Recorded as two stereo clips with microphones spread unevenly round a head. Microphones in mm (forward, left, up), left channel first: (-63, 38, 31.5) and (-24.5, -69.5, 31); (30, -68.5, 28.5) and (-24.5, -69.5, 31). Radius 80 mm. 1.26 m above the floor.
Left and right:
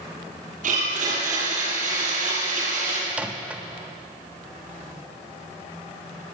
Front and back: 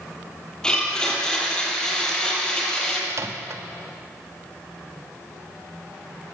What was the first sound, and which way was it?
A blender, 75° right.